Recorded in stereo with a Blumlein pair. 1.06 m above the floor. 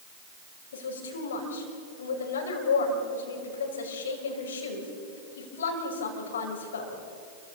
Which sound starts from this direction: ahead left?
A woman speaking, at 0.7 s.